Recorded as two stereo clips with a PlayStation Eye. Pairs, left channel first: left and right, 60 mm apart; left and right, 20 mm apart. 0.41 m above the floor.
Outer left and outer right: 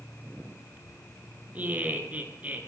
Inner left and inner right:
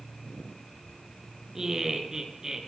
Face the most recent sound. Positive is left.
turn(degrees=-25)  # may be behind; listen again after turning